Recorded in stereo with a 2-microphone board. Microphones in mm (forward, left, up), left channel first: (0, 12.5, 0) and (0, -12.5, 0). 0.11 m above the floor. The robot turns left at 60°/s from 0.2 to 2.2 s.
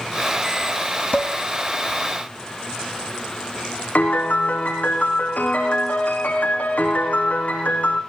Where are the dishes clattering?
50° left (ahead or behind), 3.5 m; by 1.3 s 35° left (ahead or behind), 3.5 m.